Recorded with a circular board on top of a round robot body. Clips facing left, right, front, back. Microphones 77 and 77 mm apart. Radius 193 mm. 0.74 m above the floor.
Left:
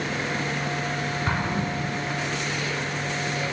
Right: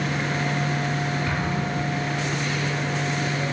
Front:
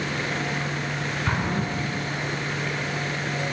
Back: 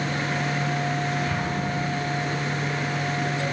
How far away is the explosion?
About 7.5 m.